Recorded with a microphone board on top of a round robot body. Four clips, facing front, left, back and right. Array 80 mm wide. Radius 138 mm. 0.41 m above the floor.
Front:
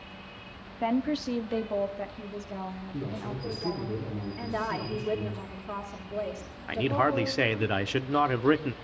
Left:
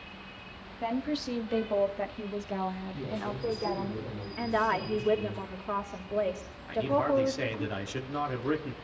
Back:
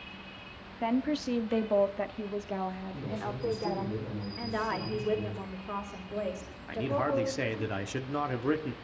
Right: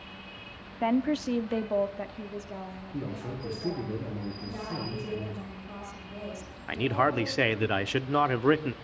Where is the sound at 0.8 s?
80° right, 1.2 m; by 3.9 s 140° left, 2 m.